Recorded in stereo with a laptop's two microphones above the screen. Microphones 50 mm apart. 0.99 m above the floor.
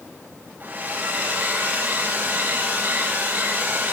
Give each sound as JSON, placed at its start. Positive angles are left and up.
{"t": 0.6, "sound": "a hair dryer", "side_deg": -40, "distance_m": 5.0}